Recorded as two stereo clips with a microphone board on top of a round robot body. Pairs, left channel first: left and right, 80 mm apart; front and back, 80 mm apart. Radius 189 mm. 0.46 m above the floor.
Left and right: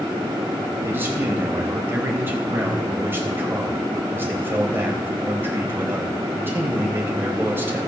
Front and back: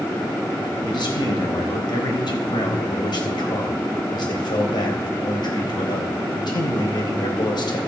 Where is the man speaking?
25° right, 4 m.